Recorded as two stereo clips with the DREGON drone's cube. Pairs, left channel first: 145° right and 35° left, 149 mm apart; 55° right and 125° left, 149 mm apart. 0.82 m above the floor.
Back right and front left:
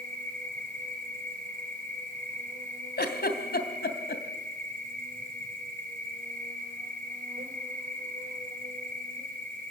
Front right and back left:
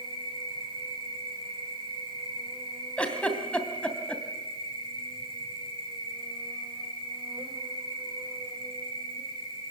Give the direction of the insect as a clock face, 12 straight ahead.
10 o'clock.